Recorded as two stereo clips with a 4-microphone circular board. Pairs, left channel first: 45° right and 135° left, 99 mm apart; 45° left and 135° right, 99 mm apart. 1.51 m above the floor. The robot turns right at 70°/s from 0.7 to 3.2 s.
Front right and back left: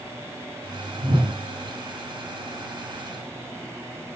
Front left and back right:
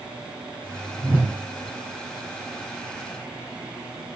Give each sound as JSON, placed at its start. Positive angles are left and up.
{"t": 1.0, "sound": "a whoosh", "azimuth_deg": 135, "distance_m": 0.8}